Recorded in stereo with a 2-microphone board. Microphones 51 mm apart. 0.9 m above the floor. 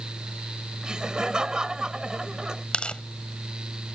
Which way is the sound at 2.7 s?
20° left (ahead or behind).